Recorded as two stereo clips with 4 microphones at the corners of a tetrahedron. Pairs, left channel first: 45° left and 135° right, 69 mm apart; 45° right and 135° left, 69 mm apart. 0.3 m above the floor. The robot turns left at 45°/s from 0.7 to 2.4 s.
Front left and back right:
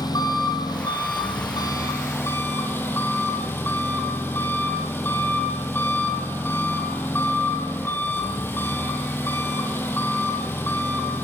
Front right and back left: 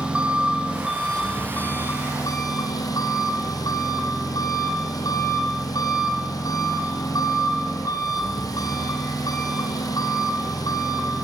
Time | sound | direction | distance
0.0 | an engine running | 60° left | 3.5 m